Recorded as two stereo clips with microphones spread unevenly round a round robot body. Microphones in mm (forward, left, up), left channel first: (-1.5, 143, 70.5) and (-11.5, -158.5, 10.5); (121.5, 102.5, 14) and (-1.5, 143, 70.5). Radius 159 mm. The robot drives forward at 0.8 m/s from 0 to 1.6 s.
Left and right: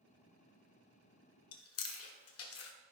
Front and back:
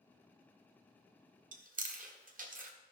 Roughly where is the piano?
No piano in this recording.